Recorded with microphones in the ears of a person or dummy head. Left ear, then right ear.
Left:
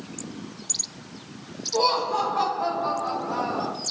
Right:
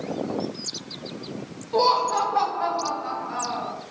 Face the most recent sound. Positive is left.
turn(degrees=0)  # may be behind; listen again after turning